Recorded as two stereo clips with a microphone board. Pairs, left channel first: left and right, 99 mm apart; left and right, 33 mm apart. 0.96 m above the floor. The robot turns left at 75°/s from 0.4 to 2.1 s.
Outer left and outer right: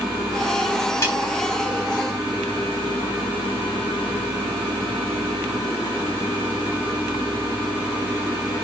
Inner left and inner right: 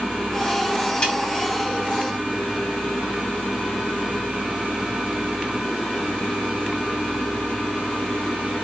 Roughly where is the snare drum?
Left.